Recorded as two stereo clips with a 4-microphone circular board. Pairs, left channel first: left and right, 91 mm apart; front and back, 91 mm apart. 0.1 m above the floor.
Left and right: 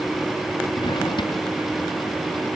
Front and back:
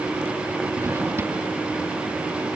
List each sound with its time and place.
0.8 s a drawer: 120° left